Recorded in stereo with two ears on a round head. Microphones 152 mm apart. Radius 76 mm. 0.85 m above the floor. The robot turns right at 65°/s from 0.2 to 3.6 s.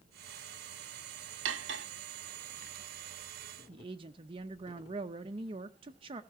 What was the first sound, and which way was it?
Cutlery clinking, 90° right.